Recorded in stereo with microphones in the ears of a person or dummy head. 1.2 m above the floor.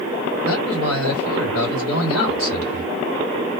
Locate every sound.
0.4 s a man speaking: 85° left, 1.4 m